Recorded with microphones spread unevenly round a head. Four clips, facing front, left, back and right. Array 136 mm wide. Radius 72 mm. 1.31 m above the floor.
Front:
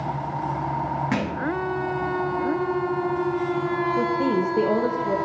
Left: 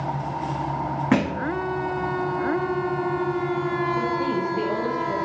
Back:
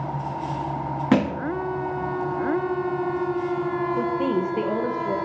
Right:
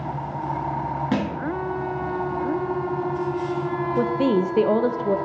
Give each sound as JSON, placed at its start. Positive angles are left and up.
{"t": 1.1, "sound": "a thud", "azimuth_deg": 145, "distance_m": 0.7}
{"t": 4.0, "sound": "a woman speaking", "azimuth_deg": -60, "distance_m": 0.7}